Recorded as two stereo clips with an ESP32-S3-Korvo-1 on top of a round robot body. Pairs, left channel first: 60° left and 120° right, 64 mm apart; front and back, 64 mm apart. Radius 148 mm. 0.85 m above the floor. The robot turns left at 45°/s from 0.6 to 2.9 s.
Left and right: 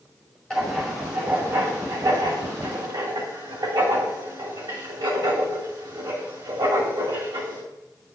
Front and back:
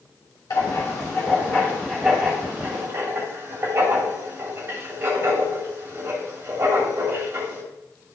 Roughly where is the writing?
Ahead.